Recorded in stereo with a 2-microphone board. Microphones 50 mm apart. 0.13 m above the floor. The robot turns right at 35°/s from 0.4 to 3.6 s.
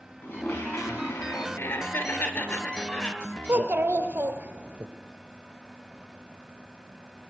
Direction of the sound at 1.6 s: 85° left.